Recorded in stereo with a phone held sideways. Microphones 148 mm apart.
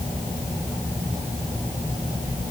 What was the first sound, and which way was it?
Only background noise.